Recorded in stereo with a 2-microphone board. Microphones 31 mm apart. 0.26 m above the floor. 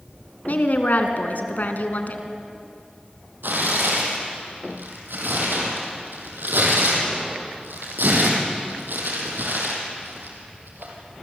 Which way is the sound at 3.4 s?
85° right.